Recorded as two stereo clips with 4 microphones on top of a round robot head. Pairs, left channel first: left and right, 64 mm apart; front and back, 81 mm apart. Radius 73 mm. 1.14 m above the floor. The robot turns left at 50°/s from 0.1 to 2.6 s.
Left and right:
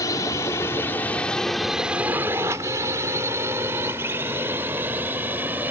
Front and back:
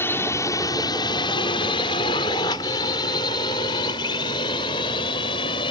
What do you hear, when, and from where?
0.0 s a drone: 55° left; by 5.7 s 25° right